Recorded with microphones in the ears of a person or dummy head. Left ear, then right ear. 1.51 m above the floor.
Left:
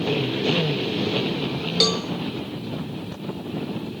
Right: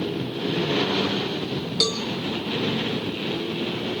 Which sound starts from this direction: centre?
A cowbell, at 1.8 s.